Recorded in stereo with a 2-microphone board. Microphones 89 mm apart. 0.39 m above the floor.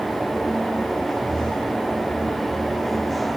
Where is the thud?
No thud in this recording.